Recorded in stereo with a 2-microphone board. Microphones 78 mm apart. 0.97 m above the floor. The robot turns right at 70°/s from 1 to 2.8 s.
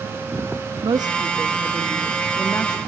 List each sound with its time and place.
0.8 s a woman speaking: 65° right, 1.3 m; by 2.8 s 60° left, 1.3 m